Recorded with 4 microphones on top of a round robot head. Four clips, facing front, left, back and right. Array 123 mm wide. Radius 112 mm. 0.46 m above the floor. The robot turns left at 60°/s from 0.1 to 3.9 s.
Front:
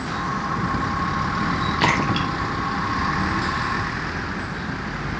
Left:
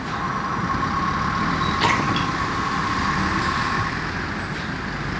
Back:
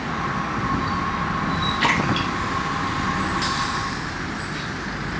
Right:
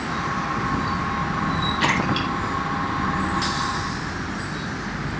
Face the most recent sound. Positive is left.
turn(degrees=-115)